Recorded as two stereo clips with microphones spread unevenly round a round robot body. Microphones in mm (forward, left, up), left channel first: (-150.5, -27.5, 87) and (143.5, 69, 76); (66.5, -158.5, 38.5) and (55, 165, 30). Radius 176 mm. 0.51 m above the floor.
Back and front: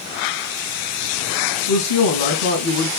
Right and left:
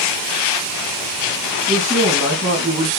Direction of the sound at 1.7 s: 170° right.